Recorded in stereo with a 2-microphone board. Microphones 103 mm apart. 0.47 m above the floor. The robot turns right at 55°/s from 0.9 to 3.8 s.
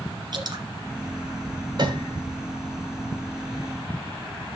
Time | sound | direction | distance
0.3 | dripping | 45° right (ahead or behind) | 2.5 m
1.8 | a piano | 45° right (ahead or behind) | 2.5 m